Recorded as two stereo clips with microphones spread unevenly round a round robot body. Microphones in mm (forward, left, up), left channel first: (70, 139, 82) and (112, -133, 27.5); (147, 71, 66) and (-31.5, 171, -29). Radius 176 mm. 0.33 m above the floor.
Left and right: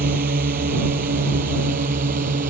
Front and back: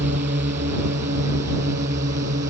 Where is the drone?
145° right.